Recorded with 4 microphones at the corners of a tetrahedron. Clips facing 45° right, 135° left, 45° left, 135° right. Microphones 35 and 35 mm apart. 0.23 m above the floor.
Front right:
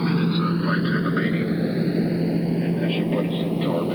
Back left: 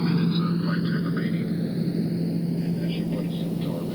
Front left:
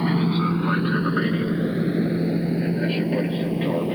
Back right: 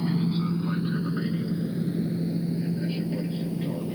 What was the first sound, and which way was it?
An aircraft, 20° left.